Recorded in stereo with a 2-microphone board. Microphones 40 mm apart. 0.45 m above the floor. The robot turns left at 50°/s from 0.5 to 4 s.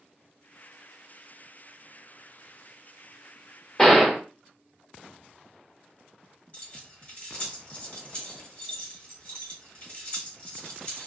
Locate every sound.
3.8 s a gunshot: 10° left (ahead or behind), 0.8 m; by 4.2 s centre (ahead or behind), 0.8 m
6.5 s keys jangling: 30° left (ahead or behind), 1.6 m